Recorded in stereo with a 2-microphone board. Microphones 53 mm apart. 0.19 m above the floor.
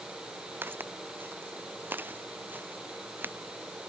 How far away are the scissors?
No scissors in this recording.